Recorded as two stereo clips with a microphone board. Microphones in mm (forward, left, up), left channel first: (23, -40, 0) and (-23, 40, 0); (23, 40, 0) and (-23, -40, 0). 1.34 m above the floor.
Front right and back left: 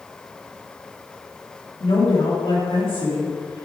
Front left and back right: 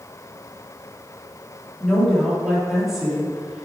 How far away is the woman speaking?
About 3 m.